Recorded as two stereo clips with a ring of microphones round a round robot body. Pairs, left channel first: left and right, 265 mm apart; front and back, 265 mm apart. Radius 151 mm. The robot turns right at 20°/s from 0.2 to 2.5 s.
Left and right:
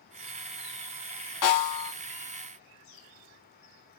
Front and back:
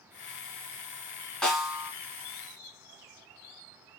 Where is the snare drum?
85° left, 1.7 m; by 1.9 s 95° left, 1.7 m.